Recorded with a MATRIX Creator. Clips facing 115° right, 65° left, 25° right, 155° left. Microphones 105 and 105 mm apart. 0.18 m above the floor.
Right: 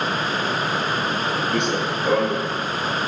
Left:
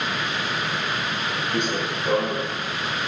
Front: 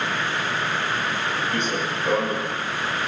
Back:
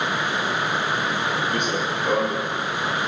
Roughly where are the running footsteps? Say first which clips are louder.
Right 3 dB, back 1 dB; behind right.